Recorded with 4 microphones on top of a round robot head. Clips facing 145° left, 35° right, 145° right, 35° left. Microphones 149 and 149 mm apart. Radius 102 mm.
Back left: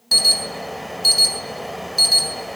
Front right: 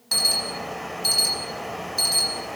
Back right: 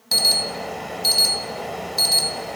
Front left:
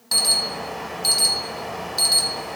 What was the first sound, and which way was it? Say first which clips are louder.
An alarm: back left 2 dB, back right 2 dB; 170° left.